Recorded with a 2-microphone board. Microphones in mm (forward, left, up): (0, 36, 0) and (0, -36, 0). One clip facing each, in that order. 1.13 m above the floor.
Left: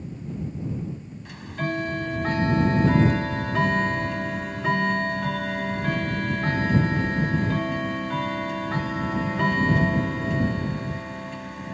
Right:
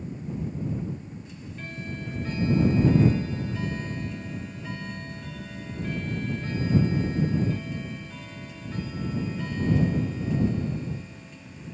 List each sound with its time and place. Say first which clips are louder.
1.2 s ticking: left 10 dB; 70° left (ahead or behind)